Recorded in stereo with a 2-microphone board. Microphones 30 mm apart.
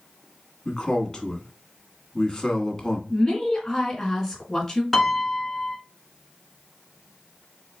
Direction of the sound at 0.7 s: 20° left (ahead or behind).